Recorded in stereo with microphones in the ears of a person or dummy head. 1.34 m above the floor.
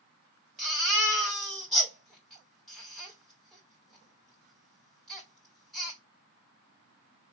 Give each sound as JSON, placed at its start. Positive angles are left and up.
{"t": 0.6, "sound": "a baby crying", "side_deg": 0, "distance_m": 2.0}